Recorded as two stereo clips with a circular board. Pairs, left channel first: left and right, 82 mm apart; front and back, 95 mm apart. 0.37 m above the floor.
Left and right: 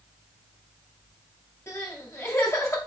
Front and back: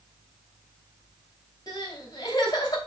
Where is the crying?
40° left, 2.5 m.